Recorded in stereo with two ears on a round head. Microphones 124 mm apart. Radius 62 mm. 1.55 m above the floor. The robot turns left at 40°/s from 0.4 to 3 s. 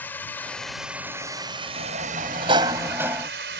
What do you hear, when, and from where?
0.0 s a drone: 10° left; by 3.6 s 90° right
1.8 s a sliding door: 115° right; by 3.3 s 165° right